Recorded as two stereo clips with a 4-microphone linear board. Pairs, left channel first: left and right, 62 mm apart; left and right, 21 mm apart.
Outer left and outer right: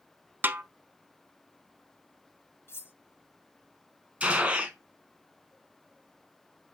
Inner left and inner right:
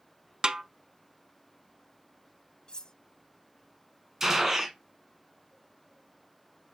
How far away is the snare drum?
About 0.5 m.